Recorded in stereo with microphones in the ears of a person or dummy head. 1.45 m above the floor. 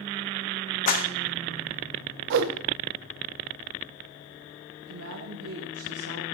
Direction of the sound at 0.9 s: 50° left (ahead or behind).